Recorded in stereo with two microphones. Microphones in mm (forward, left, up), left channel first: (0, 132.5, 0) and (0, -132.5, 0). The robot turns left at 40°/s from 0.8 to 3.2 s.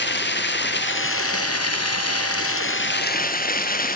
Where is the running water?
135° left, 1.5 m; by 4.0 s 35° left, 1.5 m.